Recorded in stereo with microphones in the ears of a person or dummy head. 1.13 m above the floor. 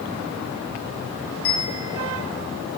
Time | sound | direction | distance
1.4 | a bell | 60° left (ahead or behind) | 5 m